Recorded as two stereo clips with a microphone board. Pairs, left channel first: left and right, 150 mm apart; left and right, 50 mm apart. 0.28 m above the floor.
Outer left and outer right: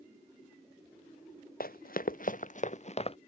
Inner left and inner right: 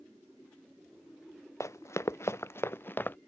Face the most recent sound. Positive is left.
turn(degrees=40)  # may be behind; listen again after turning